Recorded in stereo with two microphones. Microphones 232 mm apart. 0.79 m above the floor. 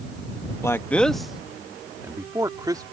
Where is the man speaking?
10° left (ahead or behind); by 2.8 s 15° right (ahead or behind).